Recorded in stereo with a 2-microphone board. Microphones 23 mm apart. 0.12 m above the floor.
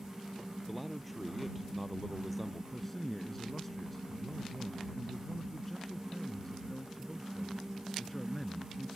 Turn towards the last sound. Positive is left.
turn(degrees=10)  # may be behind; listen again after turning